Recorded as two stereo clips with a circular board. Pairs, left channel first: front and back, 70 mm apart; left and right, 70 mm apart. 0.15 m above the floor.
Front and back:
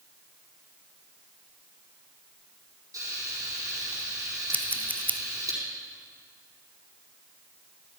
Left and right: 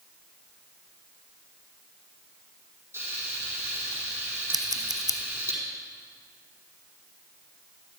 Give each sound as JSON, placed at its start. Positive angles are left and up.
{"t": 2.9, "sound": "frying", "azimuth_deg": -145, "distance_m": 4.5}
{"t": 4.5, "sound": "scissors", "azimuth_deg": -65, "distance_m": 0.5}